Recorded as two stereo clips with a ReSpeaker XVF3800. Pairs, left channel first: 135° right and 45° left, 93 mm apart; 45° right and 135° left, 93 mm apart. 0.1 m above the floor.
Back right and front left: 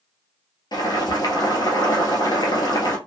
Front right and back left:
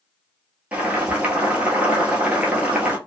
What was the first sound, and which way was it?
Boiling, 155° right.